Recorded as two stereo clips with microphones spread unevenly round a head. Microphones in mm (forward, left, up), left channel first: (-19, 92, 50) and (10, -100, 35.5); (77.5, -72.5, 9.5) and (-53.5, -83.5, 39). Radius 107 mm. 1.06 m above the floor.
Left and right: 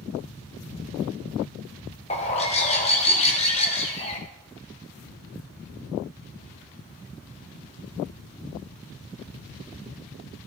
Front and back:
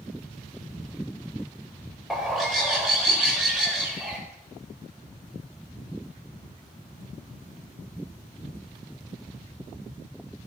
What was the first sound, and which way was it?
A bird, 120° left.